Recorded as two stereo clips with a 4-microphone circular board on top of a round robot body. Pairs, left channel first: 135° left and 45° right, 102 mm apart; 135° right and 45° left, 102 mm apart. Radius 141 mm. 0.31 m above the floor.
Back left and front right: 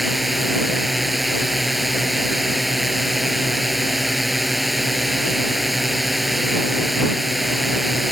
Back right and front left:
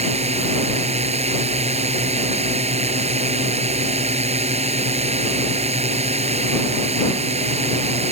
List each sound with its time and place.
0.0 s a drone: 45° left